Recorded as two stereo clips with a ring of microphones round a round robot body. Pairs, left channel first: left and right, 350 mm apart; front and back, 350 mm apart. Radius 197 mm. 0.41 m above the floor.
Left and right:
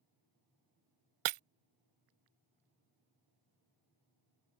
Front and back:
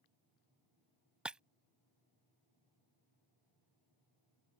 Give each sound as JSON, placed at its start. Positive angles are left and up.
{"t": 1.2, "sound": "breaking glass", "azimuth_deg": -95}